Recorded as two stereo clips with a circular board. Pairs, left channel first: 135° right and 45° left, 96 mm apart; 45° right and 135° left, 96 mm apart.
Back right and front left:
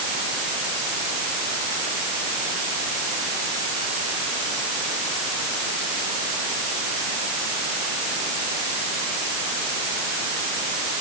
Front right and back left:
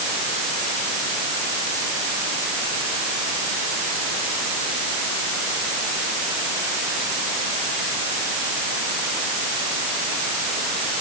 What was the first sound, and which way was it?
Only background noise.